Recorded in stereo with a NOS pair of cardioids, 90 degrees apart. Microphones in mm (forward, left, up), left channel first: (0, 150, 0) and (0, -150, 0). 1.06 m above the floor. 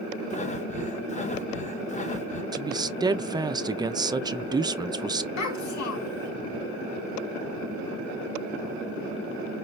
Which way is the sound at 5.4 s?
70° left.